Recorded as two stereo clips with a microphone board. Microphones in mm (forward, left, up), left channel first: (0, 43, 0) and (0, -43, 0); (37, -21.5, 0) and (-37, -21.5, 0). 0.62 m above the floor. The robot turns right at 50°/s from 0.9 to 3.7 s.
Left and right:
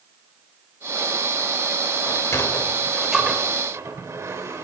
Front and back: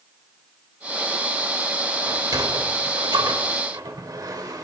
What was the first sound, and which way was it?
A sliding door, 135° left.